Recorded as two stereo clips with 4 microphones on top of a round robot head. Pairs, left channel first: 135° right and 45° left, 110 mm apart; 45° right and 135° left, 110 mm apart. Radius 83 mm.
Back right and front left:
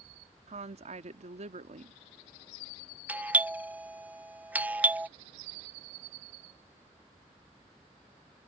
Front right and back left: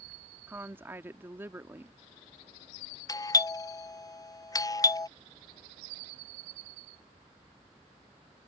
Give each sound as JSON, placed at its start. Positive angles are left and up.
{"t": 0.5, "sound": "a woman speaking", "azimuth_deg": 65}
{"t": 3.1, "sound": "a doorbell", "azimuth_deg": -25}